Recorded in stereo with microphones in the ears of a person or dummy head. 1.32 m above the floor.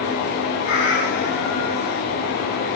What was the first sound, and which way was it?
A cat meowing, 65° left (ahead or behind).